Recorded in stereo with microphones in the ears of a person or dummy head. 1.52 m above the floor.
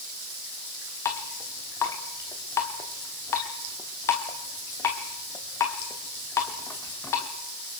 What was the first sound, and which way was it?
Dripping, 10° left (ahead or behind).